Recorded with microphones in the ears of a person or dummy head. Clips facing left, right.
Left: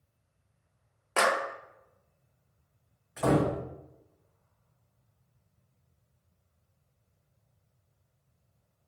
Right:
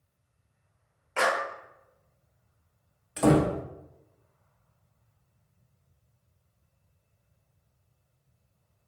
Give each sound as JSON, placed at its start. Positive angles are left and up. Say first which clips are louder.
{"t": 1.2, "sound": "a clap", "louder": "even", "side_deg": 65, "distance_m": 0.6}
{"t": 3.2, "sound": "a door slam", "louder": "right 4 dB", "side_deg": -45, "distance_m": 0.7}